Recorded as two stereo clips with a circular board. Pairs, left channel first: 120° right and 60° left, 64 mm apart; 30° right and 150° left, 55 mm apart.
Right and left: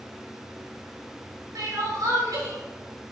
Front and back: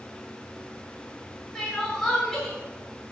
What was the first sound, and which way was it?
Crying, 55° left.